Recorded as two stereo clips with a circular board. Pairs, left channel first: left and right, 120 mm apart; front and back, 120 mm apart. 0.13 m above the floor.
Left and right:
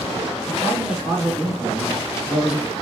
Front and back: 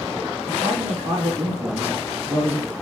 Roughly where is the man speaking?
Behind.